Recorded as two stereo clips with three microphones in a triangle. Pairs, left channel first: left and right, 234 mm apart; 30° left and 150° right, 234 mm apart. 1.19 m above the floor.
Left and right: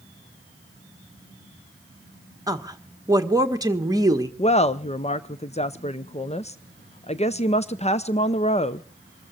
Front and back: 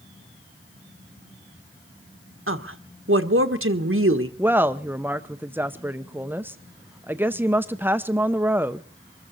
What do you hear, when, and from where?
2.5 s a woman speaking: 165° right, 1.4 m
4.4 s a woman speaking: 135° left, 0.6 m